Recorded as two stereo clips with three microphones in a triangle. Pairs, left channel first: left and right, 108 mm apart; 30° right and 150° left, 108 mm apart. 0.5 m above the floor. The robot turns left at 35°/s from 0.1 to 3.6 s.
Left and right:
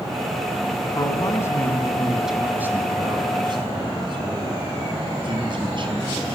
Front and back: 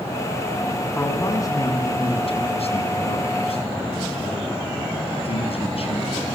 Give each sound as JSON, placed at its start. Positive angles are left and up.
{"t": 0.9, "sound": "a man speaking", "azimuth_deg": 40, "distance_m": 5.0}